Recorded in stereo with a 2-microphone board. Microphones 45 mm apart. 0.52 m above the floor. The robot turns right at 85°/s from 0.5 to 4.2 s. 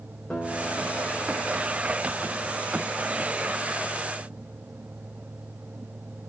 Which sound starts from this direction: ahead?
A guitar, at 0.3 s.